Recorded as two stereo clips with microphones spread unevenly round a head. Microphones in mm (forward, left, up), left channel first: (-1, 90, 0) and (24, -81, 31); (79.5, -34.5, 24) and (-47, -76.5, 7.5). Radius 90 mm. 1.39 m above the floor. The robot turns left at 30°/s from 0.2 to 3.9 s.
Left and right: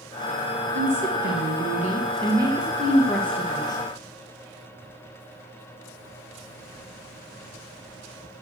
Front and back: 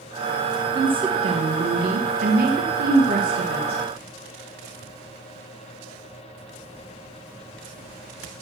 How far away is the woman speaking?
About 1.3 m.